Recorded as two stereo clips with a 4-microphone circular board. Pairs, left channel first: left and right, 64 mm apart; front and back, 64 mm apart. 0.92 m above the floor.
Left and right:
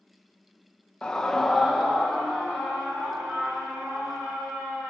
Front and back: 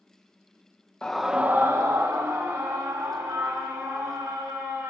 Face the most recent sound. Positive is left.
turn(degrees=-170)